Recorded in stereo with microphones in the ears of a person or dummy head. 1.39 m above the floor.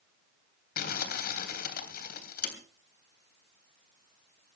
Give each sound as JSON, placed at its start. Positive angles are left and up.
{"t": 0.8, "sound": "crumpling", "side_deg": 55, "distance_m": 3.0}